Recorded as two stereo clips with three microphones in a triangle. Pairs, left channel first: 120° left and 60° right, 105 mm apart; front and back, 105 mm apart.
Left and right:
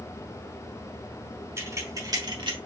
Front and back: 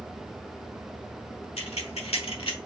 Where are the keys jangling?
Straight ahead, 1.5 m; by 2.6 s 30° right, 1.0 m.